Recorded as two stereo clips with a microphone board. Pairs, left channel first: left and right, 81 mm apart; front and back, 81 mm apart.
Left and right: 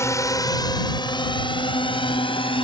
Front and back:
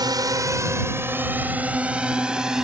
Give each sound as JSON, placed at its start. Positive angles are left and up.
{"t": 0.0, "sound": "a drone", "azimuth_deg": 145}